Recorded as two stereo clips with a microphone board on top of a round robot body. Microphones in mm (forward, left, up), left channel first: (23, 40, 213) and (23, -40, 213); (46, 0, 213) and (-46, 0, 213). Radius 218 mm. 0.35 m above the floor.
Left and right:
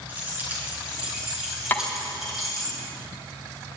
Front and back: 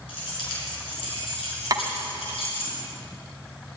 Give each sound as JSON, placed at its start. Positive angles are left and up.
{"t": 0.1, "sound": "keys jangling", "azimuth_deg": -20, "distance_m": 5.0}
{"t": 1.7, "sound": "tapping", "azimuth_deg": 150, "distance_m": 1.3}